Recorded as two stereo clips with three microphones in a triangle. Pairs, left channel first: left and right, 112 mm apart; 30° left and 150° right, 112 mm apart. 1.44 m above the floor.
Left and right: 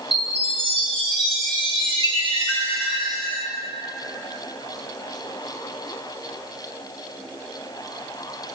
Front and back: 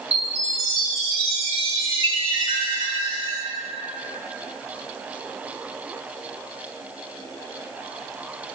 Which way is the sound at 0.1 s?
125° right.